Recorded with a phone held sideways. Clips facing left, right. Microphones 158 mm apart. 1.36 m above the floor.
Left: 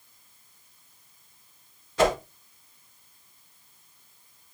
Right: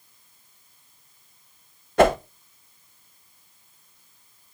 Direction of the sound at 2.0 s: 60° right (ahead or behind).